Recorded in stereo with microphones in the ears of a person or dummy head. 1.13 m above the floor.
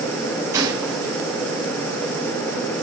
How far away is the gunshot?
About 4 m.